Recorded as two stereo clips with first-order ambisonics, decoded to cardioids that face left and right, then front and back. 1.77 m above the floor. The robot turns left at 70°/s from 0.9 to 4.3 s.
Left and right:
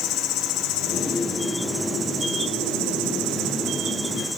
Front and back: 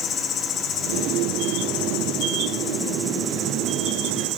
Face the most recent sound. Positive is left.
turn(degrees=180)